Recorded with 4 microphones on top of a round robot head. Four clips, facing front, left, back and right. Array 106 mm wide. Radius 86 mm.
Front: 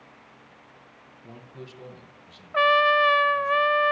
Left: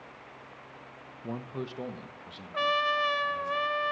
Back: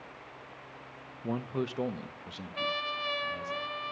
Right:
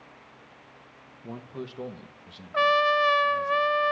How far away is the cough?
I don't hear a cough.